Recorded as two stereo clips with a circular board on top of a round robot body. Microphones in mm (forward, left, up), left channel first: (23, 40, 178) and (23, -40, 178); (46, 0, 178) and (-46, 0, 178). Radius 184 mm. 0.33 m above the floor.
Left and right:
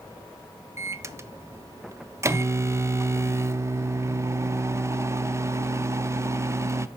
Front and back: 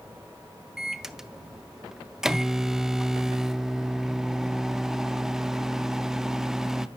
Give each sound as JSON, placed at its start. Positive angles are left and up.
{"t": 0.8, "sound": "a microwave", "azimuth_deg": -100, "distance_m": 0.6}